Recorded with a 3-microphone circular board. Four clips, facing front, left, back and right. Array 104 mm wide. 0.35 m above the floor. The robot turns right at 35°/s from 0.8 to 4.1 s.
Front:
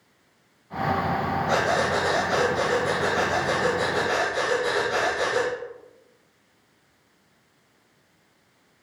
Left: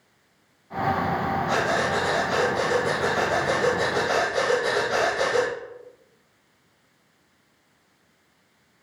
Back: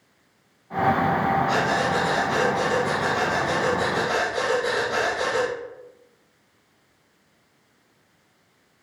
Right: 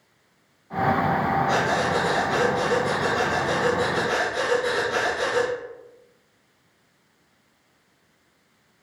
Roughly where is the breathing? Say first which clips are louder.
Right 1 dB, even; ahead.